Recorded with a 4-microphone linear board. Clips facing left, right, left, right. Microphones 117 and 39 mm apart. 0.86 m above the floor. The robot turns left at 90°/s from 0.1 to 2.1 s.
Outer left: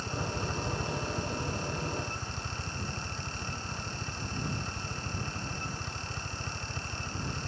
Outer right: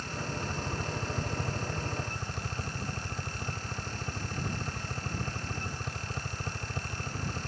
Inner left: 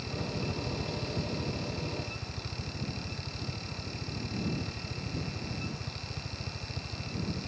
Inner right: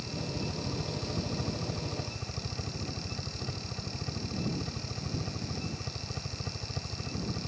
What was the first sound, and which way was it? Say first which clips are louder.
A helicopter: outer left 2 dB, inner left 1 dB; 35° left.